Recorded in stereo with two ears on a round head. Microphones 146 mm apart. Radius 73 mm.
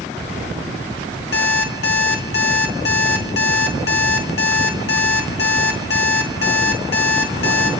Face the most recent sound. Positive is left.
turn(degrees=70)  # may be behind; listen again after turning